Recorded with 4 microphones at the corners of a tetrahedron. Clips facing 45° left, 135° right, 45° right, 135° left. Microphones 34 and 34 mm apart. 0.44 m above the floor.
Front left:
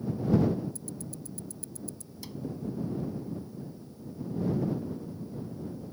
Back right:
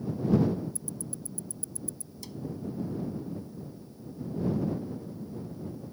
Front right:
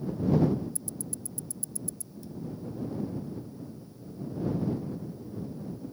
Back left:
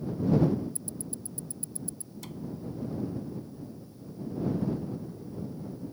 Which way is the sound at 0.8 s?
85° left.